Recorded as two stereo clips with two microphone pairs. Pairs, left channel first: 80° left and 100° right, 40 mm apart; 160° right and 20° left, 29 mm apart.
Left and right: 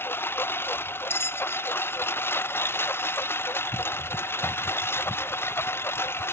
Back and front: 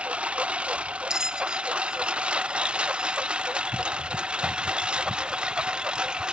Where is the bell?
75° left.